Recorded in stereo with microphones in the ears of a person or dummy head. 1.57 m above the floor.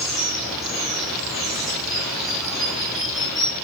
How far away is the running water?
About 6 m.